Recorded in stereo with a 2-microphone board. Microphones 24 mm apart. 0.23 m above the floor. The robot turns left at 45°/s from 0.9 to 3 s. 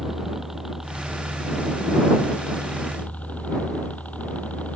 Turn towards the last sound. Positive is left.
turn(degrees=95)